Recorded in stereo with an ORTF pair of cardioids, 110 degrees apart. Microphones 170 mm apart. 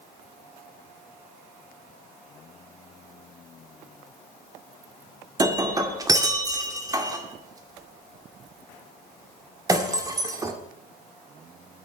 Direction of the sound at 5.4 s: 20° right.